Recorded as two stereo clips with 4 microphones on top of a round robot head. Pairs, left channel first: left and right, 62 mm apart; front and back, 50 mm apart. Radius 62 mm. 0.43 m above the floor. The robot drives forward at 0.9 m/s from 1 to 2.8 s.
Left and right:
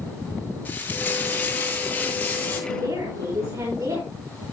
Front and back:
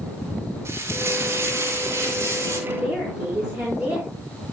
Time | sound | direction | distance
0.7 | frying | 155° left | 6 m
2.7 | a woman speaking | 120° right | 5.5 m